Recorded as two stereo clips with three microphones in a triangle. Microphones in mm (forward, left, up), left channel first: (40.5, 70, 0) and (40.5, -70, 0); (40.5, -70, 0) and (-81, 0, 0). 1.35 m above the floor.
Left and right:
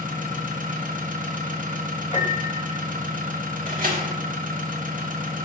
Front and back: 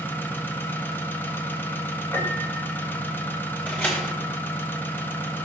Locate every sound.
0.0 s an engine running: 105° right, 1.1 m
2.1 s a piano: 45° left, 3 m
3.7 s a door slam: 110° right, 2 m